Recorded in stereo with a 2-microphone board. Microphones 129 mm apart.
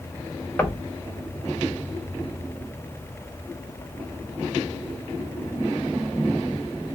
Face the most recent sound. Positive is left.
turn(degrees=15)  # may be behind; listen again after turning